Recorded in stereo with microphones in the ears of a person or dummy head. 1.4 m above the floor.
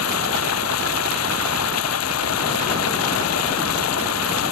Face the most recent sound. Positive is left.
turn(degrees=80)